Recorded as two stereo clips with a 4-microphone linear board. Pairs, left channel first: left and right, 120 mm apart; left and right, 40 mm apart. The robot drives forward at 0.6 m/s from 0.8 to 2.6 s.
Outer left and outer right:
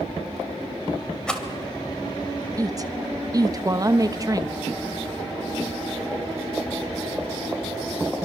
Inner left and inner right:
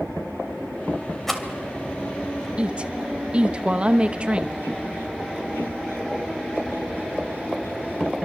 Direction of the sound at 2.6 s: 35° right (ahead or behind).